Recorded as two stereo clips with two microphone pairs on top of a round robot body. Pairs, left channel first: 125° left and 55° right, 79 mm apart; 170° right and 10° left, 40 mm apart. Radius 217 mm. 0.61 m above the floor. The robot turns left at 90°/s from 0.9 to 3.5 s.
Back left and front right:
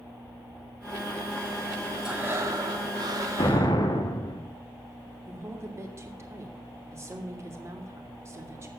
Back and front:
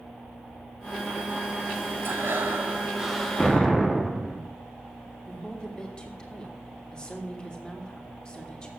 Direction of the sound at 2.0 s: 25° left.